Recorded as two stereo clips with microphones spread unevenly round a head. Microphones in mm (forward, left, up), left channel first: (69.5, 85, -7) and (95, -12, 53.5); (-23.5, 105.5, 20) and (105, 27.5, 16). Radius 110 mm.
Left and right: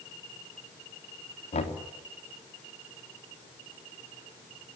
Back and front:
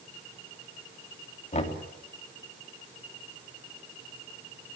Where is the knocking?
105° left, 3 m.